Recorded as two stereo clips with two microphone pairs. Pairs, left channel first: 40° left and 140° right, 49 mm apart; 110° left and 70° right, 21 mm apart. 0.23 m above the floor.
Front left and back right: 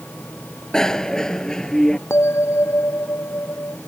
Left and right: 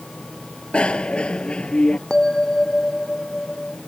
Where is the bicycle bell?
115° left.